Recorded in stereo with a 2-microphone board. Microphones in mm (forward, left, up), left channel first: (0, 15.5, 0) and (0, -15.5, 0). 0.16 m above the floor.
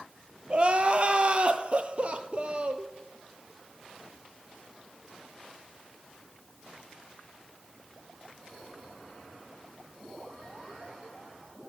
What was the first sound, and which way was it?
Crying, 35° right (ahead or behind).